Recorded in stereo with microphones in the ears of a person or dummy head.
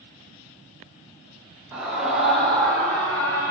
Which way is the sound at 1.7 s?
10° right (ahead or behind).